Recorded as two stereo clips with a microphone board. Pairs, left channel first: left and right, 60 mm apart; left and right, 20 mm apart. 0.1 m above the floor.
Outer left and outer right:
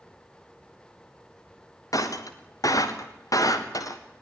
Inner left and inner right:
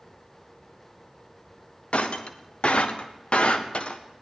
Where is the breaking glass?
70° left (ahead or behind), 2.5 m.